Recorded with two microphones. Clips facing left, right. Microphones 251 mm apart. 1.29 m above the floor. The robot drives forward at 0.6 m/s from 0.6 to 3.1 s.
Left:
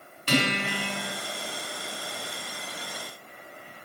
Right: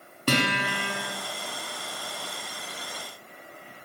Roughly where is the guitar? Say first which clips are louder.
Even; right.